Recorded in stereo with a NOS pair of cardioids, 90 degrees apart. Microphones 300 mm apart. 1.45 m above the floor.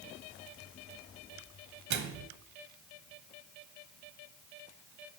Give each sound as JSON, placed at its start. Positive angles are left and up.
{"t": 1.9, "sound": "a microwave", "azimuth_deg": -60, "distance_m": 0.9}